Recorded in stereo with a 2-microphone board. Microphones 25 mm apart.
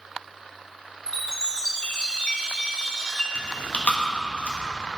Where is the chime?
35° left (ahead or behind), 1.1 m.